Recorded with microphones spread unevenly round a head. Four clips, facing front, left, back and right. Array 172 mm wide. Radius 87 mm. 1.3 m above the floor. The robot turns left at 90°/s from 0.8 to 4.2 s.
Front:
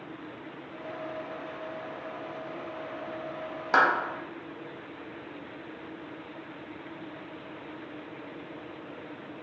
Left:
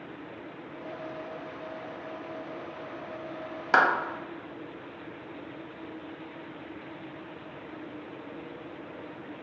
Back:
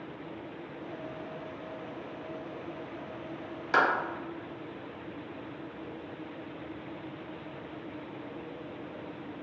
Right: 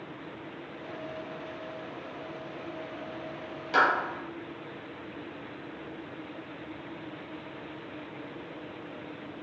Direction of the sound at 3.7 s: 35° left.